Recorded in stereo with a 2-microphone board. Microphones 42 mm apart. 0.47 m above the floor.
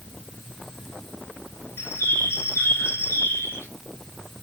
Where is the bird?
65° left (ahead or behind), 1.3 m.